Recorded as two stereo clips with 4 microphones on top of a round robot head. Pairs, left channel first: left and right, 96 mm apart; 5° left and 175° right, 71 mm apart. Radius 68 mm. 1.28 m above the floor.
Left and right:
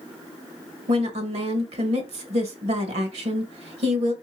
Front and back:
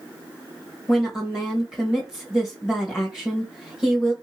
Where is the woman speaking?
90° right, 1.8 m.